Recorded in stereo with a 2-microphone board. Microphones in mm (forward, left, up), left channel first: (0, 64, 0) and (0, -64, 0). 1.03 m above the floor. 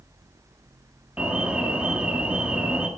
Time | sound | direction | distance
1.2 | an alarm | 10° right (ahead or behind) | 1.3 m